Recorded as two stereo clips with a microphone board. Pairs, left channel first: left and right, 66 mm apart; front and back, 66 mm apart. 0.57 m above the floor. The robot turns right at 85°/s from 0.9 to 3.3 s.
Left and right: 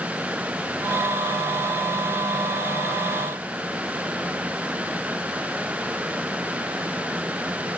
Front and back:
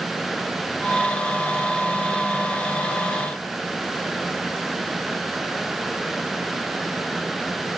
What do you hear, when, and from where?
Only background noise.